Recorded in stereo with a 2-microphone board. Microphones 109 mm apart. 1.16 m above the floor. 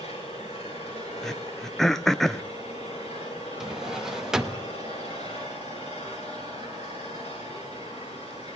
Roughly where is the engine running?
Left.